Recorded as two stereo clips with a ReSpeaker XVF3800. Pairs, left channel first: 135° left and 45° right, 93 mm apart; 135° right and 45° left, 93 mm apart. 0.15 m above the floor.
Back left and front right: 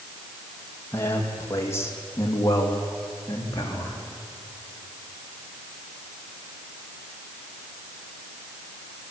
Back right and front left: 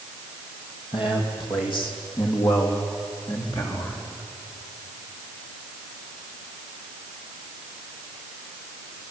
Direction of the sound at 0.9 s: 160° right.